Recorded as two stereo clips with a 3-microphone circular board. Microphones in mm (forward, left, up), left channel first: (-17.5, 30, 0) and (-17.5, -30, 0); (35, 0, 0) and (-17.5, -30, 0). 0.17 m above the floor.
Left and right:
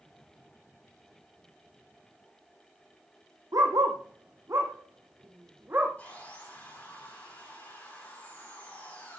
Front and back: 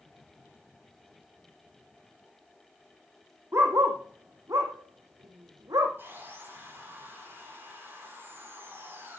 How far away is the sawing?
About 7 m.